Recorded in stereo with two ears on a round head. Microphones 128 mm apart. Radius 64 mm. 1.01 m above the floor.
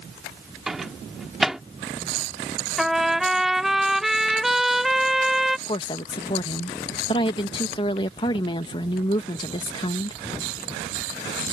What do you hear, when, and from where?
0.7 s a microwave: 5° right (ahead or behind)
2.8 s a trumpet: centre (ahead or behind)
5.7 s a woman speaking: 35° left (ahead or behind)